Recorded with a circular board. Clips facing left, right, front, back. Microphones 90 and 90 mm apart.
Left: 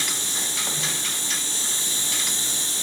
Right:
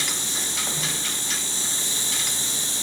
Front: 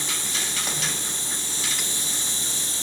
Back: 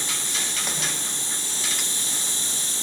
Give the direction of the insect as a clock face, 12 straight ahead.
10 o'clock.